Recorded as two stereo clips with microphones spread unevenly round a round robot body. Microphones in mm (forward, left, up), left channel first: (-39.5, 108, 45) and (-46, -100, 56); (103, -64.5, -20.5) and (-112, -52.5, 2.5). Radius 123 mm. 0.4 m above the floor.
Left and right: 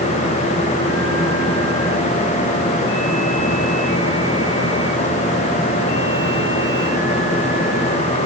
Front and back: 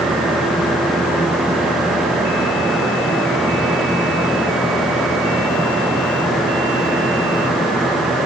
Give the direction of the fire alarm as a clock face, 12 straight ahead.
No fire alarm in this recording.